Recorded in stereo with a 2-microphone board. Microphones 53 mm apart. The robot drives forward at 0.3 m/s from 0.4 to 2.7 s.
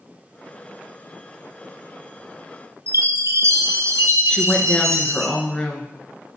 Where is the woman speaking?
20° left (ahead or behind), 1.5 m.